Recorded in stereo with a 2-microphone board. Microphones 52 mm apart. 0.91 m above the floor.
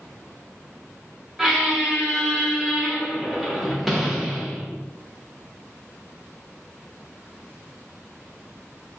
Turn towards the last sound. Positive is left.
turn(degrees=-5)  # may be behind; listen again after turning